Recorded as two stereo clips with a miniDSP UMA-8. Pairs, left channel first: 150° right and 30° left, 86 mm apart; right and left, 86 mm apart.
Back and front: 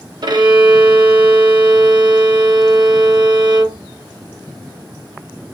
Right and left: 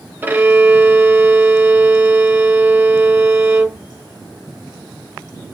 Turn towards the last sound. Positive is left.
turn(degrees=30)